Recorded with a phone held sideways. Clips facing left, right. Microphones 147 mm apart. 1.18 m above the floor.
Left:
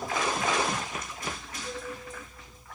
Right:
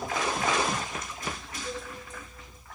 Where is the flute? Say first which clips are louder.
Right 1 dB; 5° right (ahead or behind), 1.3 m.